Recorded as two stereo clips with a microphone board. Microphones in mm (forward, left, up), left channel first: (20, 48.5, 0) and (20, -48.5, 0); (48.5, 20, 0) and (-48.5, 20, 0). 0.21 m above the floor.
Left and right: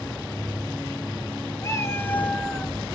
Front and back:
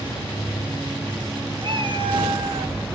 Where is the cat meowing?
145° left, 1.6 m; by 2.8 s 165° right, 1.1 m.